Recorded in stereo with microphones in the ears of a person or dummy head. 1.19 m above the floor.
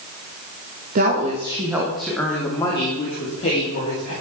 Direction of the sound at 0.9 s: 45° right (ahead or behind).